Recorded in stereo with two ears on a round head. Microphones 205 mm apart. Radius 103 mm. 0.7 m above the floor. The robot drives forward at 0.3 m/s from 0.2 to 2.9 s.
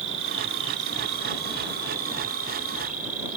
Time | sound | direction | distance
0.0 | an insect | 60° right (ahead or behind) | ?